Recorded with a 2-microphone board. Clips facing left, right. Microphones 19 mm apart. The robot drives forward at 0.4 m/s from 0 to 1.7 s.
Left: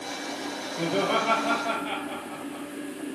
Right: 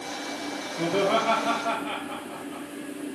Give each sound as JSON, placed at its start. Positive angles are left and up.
{"t": 0.8, "sound": "laughter", "side_deg": 5, "distance_m": 2.5}